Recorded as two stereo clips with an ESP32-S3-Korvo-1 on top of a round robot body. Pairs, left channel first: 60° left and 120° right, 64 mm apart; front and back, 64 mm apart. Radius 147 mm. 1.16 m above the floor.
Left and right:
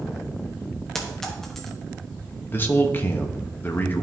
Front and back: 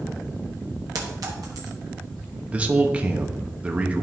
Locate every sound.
0.9 s a clink: 145° left, 0.9 m
2.5 s a man speaking: 115° left, 1.0 m